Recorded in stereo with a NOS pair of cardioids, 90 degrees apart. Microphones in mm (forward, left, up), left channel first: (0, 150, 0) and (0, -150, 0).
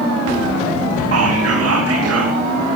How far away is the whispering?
About 3 m.